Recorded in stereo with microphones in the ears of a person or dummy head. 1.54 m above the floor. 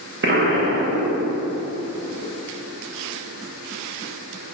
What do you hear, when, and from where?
0.2 s an explosion: 50° right (ahead or behind), 1.0 m